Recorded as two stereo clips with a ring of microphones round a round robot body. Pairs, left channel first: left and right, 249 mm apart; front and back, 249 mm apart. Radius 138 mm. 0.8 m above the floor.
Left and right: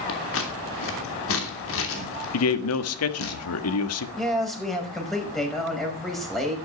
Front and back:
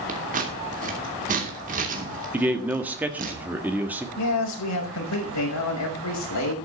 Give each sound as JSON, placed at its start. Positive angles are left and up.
{"t": 0.1, "sound": "scissors", "azimuth_deg": 120, "distance_m": 3.0}
{"t": 2.3, "sound": "a man speaking", "azimuth_deg": 95, "distance_m": 1.4}
{"t": 4.2, "sound": "a man speaking", "azimuth_deg": 0, "distance_m": 5.5}